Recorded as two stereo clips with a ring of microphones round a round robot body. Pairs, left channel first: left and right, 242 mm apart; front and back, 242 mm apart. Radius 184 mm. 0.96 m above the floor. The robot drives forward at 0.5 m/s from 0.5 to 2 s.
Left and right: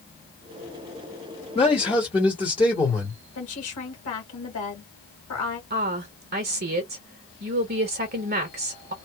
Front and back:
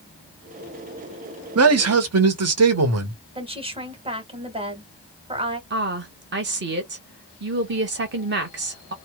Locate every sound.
1.6 s a man speaking: 160° left, 0.9 m; by 3.2 s 165° left, 1.1 m
3.4 s a woman speaking: 115° left, 1.9 m
5.7 s a woman speaking: 140° right, 0.9 m